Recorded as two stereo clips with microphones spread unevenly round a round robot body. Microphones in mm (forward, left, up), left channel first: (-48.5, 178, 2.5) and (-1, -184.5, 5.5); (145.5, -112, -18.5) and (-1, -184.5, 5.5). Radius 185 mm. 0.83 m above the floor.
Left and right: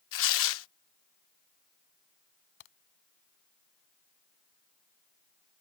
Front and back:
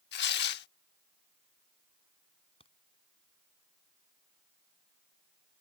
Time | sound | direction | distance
0.1 | tearing paper | 45° left | ?
2.6 | a crack | 100° left | ?